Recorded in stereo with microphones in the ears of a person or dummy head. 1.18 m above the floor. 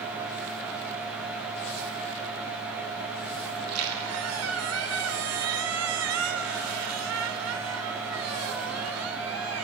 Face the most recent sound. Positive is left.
turn(degrees=-85)